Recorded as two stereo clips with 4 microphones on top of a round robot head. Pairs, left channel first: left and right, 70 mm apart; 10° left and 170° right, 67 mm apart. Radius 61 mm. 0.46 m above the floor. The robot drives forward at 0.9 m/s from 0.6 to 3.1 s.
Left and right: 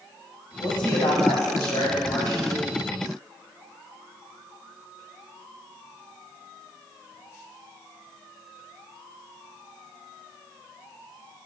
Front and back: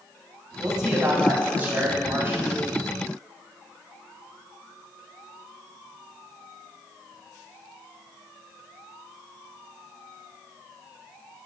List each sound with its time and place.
0.6 s a woman speaking: 105° left, 2.5 m; by 2.6 s 135° left, 3.5 m